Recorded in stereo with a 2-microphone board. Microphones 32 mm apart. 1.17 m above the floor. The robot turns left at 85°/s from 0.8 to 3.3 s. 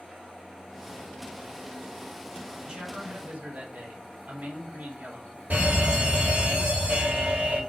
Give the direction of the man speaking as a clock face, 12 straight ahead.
12 o'clock.